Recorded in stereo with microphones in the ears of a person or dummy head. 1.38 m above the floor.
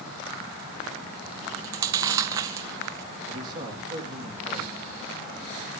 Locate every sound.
1.4 s chewing: 20° right (ahead or behind), 0.5 m
3.3 s a man speaking: 25° right (ahead or behind), 2.5 m